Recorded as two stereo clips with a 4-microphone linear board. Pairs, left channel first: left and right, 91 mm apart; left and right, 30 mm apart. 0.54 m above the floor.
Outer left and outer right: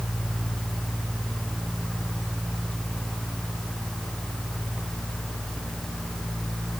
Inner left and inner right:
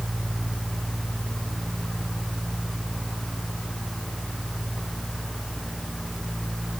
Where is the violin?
I don't hear a violin.